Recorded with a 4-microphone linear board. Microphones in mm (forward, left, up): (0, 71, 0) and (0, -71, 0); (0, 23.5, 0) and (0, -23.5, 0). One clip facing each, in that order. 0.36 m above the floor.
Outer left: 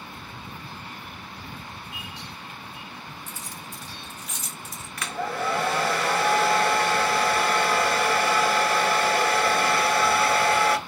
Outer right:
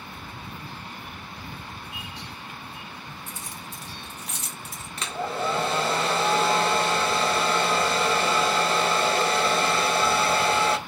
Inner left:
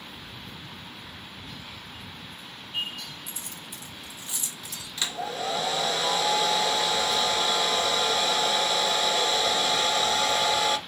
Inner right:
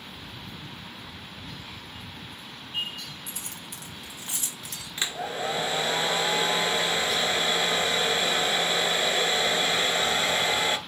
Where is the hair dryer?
25° right (ahead or behind), 0.9 m.